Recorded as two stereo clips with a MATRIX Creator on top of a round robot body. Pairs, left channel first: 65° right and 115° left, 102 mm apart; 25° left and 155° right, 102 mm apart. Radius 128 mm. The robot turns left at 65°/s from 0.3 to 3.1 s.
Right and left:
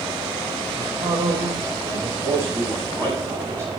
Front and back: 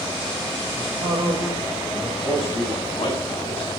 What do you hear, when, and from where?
0.7 s a man speaking: 175° left, 4 m; by 2.1 s 90° left, 4 m
2.2 s a man speaking: 65° left, 8.5 m; by 3.7 s 5° left, 8.5 m